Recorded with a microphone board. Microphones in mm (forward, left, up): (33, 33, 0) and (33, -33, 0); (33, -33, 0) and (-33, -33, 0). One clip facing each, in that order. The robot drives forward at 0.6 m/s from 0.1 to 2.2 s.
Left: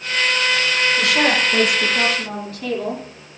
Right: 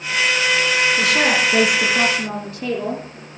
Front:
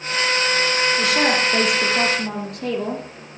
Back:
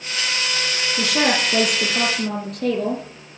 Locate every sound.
1.0 s a woman speaking: 160° right, 6 m